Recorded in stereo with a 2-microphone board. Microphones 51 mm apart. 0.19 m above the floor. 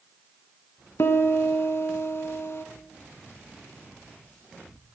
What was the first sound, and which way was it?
A piano, 55° left (ahead or behind).